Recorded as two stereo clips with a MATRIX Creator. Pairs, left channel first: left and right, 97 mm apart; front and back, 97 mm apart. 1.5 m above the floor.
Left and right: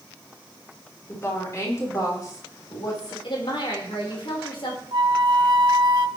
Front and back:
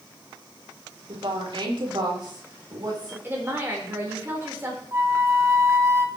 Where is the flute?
120° right, 1.3 m.